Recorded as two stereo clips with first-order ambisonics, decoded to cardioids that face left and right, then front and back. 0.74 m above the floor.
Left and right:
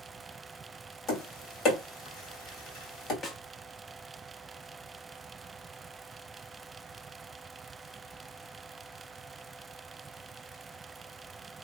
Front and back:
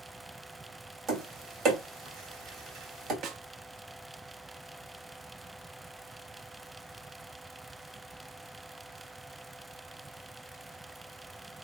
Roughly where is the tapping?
Behind left.